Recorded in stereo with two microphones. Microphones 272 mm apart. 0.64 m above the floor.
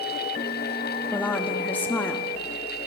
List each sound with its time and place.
1.1 s a woman speaking: 5° left (ahead or behind), 0.9 m